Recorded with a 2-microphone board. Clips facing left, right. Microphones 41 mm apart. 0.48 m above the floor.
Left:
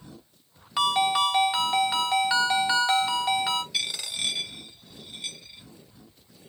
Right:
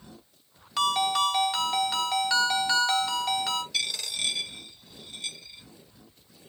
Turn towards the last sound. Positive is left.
turn(degrees=10)  # may be behind; listen again after turning